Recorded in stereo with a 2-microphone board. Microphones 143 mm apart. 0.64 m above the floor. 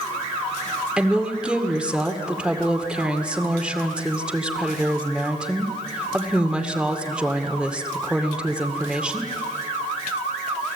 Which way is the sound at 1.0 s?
5° right (ahead or behind).